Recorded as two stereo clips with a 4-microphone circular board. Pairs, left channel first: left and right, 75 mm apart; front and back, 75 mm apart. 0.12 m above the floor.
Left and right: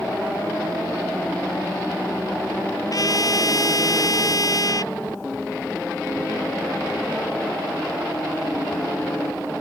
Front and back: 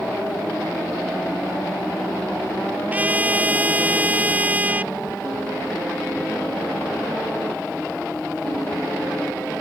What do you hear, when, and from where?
2.9 s a trumpet: 115° left